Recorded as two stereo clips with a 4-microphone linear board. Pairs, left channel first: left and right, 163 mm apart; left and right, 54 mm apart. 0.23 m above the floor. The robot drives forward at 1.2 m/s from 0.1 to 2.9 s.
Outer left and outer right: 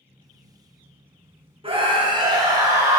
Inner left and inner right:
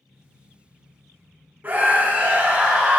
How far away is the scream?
About 1.5 m.